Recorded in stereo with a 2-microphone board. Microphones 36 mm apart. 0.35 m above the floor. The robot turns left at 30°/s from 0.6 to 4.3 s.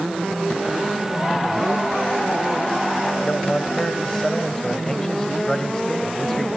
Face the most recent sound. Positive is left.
turn(degrees=20)